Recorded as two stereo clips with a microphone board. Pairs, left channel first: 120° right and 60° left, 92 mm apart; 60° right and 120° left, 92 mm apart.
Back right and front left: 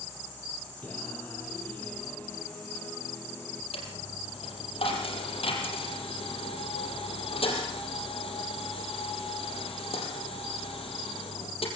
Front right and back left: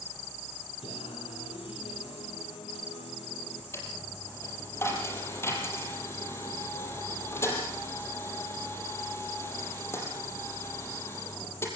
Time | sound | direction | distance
0.8 | singing | 45° right | 3.5 m
3.7 | a dropped coin | 125° right | 5 m